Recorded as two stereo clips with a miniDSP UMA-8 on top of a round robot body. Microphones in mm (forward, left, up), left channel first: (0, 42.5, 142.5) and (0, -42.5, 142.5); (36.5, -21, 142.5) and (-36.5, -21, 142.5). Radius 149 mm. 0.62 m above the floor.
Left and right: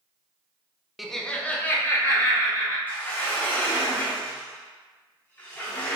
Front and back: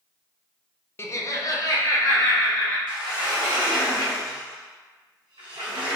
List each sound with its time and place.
1.0 s laughter: straight ahead, 0.5 m; by 2.8 s 30° left, 1.4 m
2.9 s a sliding door: 160° left, 0.7 m